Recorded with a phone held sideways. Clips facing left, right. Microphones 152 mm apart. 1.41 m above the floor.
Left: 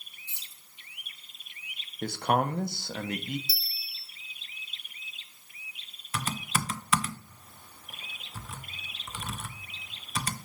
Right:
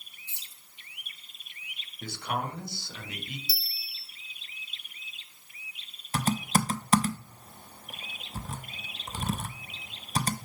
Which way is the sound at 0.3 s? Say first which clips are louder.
Even; 65° right (ahead or behind).